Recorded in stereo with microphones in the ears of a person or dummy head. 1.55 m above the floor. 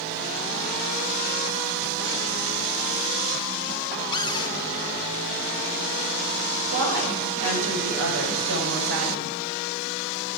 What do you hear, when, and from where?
4.1 s a cupboard door: 25° left (ahead or behind), 1.3 m
6.7 s a woman speaking: 75° right (ahead or behind), 6 m